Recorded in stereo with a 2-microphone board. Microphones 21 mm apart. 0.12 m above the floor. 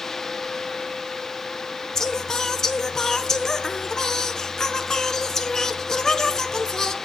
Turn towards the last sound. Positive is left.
turn(degrees=25)  # may be behind; listen again after turning